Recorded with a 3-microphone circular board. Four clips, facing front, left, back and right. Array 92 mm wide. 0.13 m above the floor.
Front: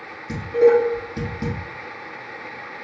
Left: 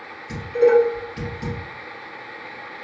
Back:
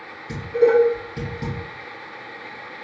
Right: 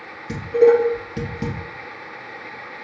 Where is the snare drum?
I don't hear a snare drum.